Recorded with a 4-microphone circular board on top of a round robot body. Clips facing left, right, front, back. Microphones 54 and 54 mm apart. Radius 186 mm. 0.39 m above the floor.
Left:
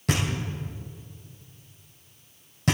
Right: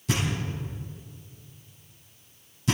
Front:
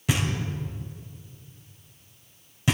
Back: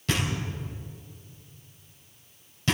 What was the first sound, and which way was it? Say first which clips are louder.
Knocking: left 1 dB, front 1 dB; 75° left.